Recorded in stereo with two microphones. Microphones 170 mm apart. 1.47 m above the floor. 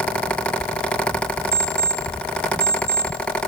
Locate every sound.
1.5 s an alarm clock: 65° left (ahead or behind), 3.5 m